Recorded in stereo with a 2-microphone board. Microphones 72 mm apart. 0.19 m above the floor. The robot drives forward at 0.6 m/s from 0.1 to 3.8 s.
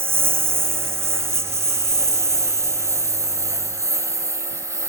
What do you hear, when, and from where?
0.0 s a lawn mower: 30° right (ahead or behind); by 4.9 s 40° right (ahead or behind)